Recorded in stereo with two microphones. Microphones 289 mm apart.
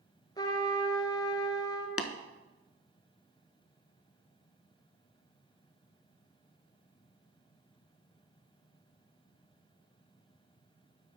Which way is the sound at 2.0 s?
55° left (ahead or behind).